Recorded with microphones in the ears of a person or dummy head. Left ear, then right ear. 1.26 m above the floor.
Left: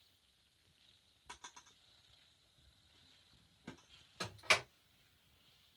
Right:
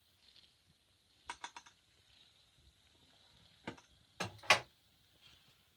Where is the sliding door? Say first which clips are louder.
Right 2 dB; 35° right (ahead or behind), 1.6 m.